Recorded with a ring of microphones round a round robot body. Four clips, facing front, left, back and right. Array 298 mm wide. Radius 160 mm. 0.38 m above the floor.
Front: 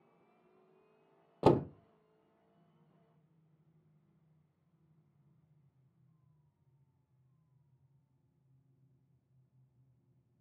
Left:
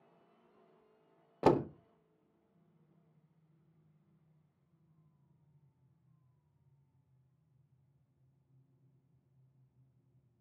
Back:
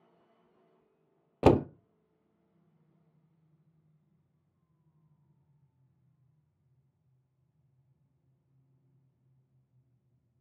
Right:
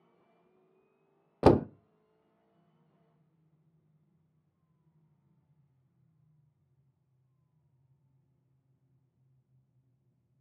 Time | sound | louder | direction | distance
1.4 | a door slam | right 6 dB, back 4 dB | 125° right | 0.5 m